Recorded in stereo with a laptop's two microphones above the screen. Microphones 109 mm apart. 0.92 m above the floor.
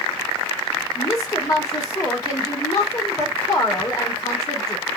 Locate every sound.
0.9 s a woman speaking: 30° left (ahead or behind), 1.6 m